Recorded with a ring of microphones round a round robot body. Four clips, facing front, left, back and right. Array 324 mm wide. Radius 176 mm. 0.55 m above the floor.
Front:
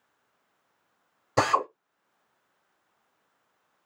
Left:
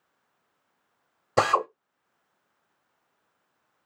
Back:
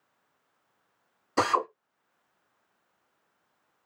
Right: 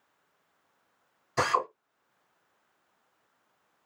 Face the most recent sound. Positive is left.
turn(degrees=65)